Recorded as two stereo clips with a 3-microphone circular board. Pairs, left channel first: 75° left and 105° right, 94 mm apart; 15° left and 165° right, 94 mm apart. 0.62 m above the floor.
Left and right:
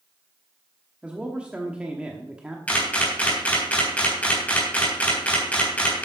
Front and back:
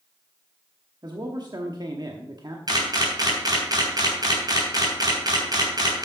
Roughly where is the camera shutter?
Behind left.